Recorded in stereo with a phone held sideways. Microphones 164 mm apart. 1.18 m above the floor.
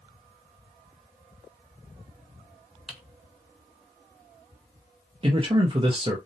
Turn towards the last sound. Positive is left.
turn(degrees=-35)  # may be behind; listen again after turning